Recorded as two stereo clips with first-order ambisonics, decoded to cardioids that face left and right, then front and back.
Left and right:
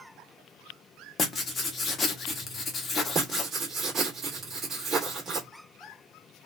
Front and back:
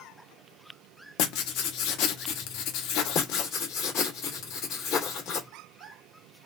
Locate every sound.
1.2 s writing: 20° left, 0.7 m
3.1 s writing: 30° right, 1.6 m